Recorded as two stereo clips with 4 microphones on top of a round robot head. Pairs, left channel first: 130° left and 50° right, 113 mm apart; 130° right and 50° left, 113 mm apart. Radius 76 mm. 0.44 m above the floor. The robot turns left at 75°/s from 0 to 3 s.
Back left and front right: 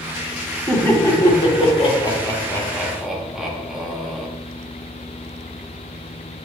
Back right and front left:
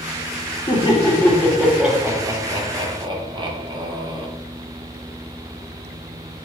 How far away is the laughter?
About 1.0 m.